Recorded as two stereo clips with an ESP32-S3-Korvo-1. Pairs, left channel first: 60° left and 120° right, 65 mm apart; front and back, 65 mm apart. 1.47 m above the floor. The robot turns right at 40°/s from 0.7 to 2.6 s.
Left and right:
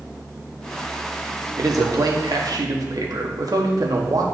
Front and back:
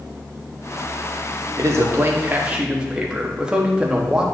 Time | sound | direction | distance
1.6 | a man speaking | 145° right | 1.2 m